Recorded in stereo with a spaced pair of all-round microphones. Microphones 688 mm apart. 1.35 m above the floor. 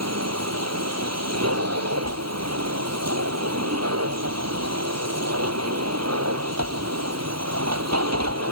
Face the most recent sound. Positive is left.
turn(degrees=-20)  # may be behind; listen again after turning